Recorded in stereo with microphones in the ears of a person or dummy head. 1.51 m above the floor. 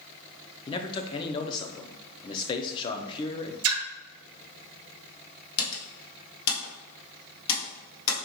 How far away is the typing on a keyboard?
About 1.3 m.